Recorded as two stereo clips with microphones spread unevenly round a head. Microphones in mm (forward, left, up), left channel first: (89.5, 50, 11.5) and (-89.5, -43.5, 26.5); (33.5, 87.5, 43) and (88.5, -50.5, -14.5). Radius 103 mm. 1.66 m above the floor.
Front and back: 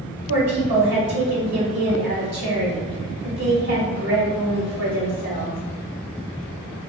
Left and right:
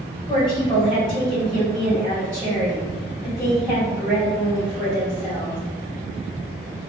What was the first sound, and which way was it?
A woman speaking, 165° right.